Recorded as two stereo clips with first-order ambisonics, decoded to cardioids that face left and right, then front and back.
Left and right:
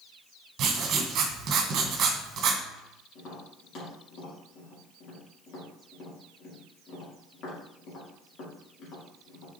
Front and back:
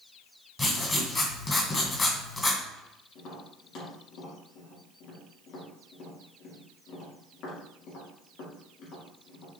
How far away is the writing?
About 1.8 m.